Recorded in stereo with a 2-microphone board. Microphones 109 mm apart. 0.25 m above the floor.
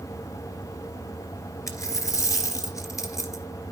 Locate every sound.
1.7 s a dropped coin: 30° left (ahead or behind), 1.9 m